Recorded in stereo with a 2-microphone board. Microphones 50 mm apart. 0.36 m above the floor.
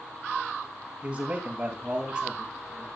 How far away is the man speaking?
About 6.5 m.